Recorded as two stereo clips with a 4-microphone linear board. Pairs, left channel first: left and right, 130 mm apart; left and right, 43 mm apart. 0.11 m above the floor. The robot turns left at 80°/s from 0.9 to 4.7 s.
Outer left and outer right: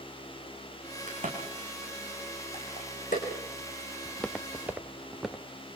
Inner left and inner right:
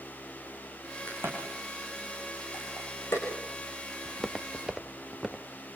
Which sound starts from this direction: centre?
Footsteps, at 4.0 s.